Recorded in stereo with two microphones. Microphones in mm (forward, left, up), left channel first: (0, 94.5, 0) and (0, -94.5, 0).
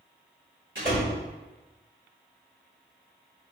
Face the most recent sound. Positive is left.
turn(degrees=-85)